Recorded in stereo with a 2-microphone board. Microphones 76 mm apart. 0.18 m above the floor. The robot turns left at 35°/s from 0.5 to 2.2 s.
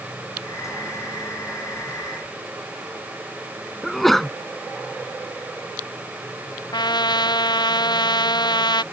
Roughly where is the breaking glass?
No breaking glass in this recording.